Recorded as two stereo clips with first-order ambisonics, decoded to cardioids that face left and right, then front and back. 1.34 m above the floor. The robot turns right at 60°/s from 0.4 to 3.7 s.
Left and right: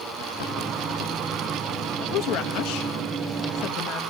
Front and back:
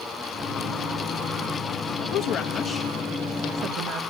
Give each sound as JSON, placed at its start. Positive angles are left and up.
{"t": 2.0, "sound": "a woman speaking", "azimuth_deg": 35, "distance_m": 1.3}